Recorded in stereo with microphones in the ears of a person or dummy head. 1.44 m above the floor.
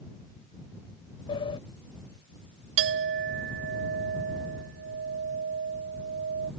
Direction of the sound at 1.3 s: 30° left (ahead or behind).